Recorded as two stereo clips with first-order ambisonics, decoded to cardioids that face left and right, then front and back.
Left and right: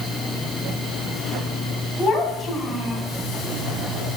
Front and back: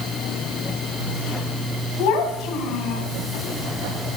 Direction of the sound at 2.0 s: 5° left.